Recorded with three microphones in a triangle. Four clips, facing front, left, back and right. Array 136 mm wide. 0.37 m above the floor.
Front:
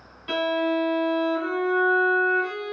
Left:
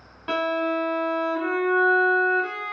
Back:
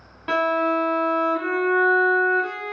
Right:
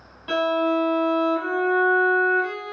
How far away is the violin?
About 1.0 m.